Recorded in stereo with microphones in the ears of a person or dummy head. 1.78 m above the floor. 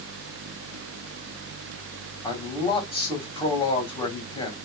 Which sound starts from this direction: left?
A man speaking, at 2.2 s.